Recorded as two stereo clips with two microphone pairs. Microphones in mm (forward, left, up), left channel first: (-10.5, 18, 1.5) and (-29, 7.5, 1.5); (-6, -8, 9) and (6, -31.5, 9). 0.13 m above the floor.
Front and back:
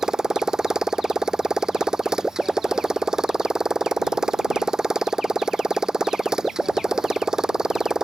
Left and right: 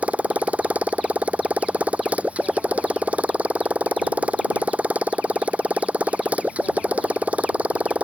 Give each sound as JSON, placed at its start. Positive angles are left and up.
{"t": 0.0, "sound": "a motorcycle", "azimuth_deg": -90}